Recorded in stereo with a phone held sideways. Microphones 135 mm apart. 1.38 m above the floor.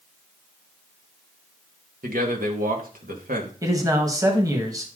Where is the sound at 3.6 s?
25° right (ahead or behind), 1.6 m.